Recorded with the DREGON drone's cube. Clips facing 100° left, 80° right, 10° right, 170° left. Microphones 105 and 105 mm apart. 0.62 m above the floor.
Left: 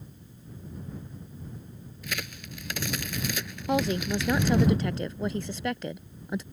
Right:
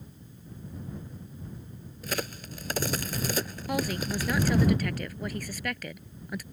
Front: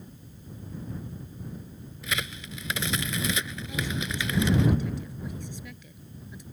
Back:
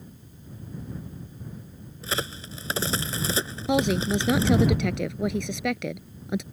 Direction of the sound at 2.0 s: 130° right.